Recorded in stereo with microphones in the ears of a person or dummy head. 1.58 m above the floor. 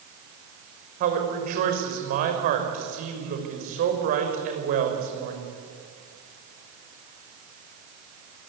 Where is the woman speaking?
45° right (ahead or behind), 5.5 m.